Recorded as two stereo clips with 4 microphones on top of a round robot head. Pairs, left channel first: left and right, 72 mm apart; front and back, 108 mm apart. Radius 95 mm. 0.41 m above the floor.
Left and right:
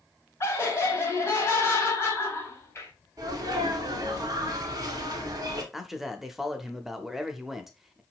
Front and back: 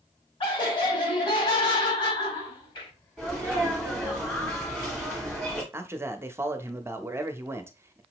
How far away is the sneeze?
About 1.7 m.